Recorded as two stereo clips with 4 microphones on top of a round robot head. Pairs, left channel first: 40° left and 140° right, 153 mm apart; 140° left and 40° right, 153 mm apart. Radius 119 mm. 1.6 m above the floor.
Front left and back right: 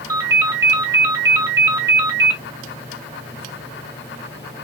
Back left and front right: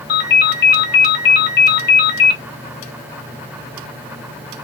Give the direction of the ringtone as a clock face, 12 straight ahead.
7 o'clock.